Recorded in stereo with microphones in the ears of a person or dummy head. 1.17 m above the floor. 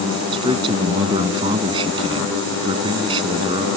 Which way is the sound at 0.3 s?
25° right (ahead or behind).